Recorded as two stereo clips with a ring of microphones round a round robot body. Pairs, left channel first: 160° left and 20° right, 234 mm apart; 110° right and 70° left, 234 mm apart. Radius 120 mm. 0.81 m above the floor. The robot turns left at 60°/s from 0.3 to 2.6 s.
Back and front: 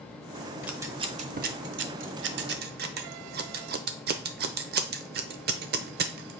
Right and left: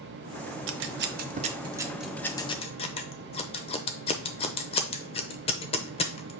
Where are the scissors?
60° left, 0.6 m; by 6.3 s 55° right, 0.6 m.